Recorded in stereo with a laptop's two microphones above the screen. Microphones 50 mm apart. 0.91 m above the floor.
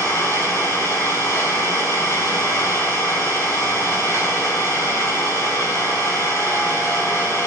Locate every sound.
0.0 s an engine running: 80° left, 5 m